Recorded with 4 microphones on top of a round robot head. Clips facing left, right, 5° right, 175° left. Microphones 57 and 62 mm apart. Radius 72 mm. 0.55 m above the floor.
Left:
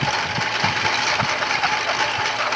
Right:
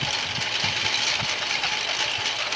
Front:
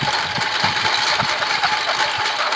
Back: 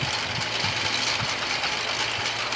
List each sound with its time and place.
0.0 s a lawn mower: 30° left